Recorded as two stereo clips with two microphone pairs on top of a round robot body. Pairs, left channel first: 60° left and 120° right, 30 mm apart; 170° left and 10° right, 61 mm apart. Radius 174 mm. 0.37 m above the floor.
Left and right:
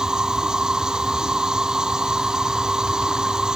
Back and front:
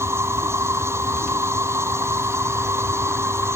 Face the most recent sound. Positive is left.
turn(degrees=-50)